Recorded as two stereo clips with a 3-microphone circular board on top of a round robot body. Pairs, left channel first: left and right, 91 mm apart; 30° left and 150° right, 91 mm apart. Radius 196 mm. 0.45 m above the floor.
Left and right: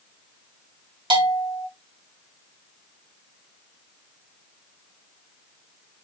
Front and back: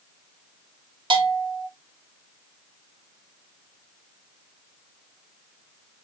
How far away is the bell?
About 3.5 m.